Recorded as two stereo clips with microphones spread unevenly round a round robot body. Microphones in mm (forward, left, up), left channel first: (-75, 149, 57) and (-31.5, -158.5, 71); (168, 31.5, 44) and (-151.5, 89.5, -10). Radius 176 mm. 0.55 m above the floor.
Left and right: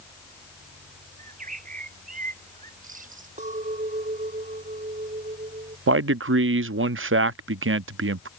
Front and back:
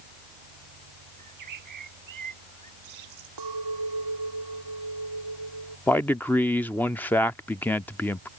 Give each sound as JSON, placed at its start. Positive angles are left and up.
{"t": 1.2, "sound": "a bird", "azimuth_deg": -150}
{"t": 3.4, "sound": "a clink", "azimuth_deg": -150}
{"t": 5.9, "sound": "a man speaking", "azimuth_deg": -105}